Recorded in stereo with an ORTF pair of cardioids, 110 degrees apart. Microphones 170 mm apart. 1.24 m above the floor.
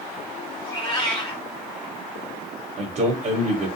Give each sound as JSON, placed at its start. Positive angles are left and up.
{"t": 0.6, "sound": "a cat meowing", "azimuth_deg": 25, "distance_m": 1.4}
{"t": 2.8, "sound": "a man speaking", "azimuth_deg": -50, "distance_m": 0.8}